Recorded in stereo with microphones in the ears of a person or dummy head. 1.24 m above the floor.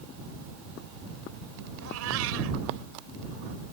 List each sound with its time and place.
1.8 s a cat meowing: 75° right (ahead or behind)